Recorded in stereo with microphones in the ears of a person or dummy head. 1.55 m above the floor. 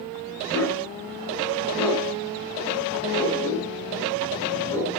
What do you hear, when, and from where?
0.5 s a dog barking: 10° left (ahead or behind), 4.5 m